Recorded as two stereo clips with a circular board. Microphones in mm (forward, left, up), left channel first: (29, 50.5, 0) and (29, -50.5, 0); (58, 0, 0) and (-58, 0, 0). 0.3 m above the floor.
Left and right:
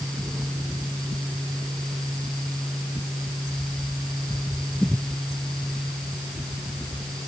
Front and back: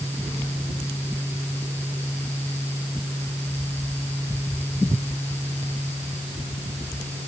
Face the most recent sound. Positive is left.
No sound to turn to.